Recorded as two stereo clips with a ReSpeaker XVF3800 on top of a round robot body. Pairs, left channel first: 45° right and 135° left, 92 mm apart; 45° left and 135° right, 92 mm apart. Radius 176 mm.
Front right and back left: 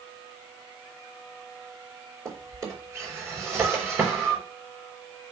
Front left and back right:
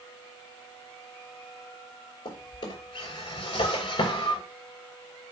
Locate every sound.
2.2 s a drawer: 75° left, 5.5 m